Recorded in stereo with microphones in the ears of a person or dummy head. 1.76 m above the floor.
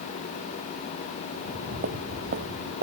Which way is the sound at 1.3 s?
60° right (ahead or behind).